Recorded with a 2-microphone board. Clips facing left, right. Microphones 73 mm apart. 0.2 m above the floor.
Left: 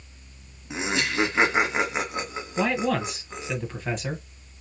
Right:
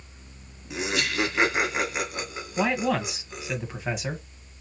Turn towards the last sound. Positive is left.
turn(degrees=-10)  # may be behind; listen again after turning